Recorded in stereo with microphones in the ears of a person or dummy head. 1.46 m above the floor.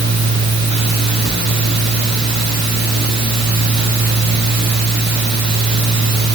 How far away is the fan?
About 7 m.